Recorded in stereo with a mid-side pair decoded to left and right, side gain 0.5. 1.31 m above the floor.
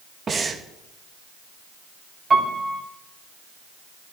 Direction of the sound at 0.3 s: 35° right.